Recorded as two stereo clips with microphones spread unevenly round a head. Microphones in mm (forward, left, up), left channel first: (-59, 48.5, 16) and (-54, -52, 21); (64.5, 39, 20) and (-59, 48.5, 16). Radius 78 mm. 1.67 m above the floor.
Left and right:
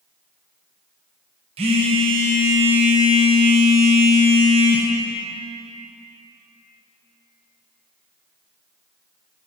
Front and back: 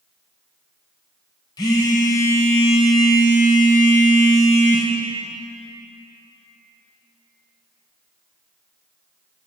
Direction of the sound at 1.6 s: 70° right.